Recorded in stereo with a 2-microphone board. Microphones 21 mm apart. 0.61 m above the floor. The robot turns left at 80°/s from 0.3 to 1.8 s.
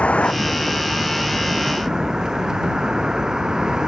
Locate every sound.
0.0 s a vehicle: 90° left; by 3.9 s 30° right